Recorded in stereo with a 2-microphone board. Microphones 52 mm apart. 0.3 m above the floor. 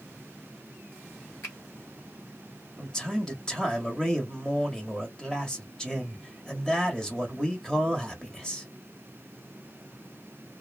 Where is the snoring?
No snoring in this recording.